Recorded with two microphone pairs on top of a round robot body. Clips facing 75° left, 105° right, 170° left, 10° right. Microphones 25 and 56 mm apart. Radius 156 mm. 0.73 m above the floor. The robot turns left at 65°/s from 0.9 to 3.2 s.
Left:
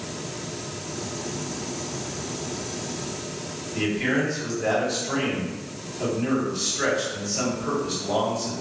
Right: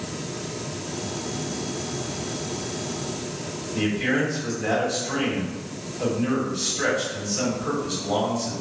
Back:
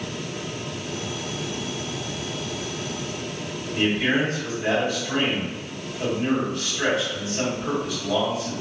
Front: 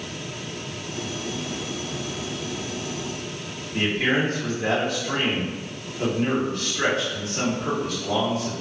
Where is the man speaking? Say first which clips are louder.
Even, even; 20° left, 1.6 m.